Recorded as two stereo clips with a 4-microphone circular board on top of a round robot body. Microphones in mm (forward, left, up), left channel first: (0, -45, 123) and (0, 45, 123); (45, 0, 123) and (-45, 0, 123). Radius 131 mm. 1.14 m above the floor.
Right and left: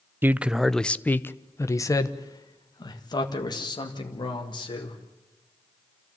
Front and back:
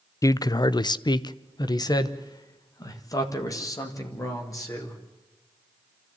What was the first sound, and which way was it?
A man speaking, 35° left.